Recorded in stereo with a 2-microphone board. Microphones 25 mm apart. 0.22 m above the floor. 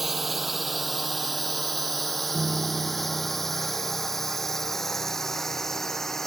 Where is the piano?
5° right (ahead or behind).